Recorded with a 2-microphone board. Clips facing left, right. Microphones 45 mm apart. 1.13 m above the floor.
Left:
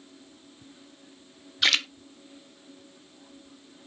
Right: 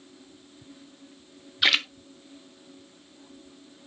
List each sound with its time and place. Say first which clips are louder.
1.6 s a splash: right 1 dB; 10° right (ahead or behind), 0.6 m